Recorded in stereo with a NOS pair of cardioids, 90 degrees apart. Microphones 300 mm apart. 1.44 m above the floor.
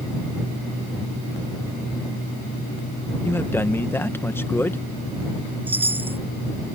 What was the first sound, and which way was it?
A man speaking, 10° left.